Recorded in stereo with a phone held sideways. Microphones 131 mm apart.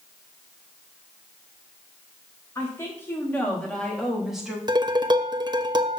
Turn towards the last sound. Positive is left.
turn(degrees=-35)  # may be behind; listen again after turning